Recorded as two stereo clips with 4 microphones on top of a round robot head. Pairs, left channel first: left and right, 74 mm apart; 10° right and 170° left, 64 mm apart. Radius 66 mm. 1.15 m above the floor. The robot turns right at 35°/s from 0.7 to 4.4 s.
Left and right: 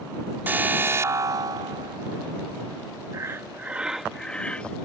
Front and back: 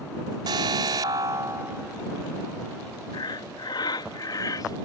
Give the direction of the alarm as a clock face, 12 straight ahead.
5 o'clock.